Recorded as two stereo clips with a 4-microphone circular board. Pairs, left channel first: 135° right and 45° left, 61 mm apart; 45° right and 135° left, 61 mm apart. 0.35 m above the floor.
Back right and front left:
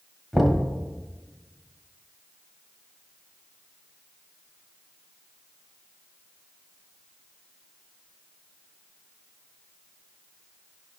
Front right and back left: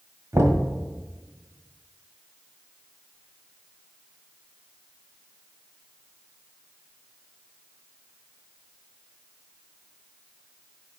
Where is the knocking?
135° left, 1.8 m.